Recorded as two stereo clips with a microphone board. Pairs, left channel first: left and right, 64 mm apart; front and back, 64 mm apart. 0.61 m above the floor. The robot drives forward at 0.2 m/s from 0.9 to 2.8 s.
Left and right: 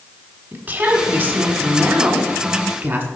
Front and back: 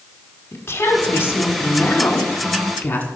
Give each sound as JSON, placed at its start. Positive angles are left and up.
{"t": 0.5, "sound": "a woman speaking", "azimuth_deg": -40, "distance_m": 1.6}